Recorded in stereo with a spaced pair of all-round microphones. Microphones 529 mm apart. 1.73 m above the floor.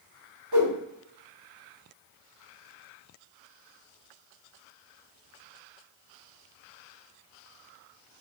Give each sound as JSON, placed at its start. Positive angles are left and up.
{"t": 0.5, "sound": "a whoosh", "side_deg": -45, "distance_m": 0.7}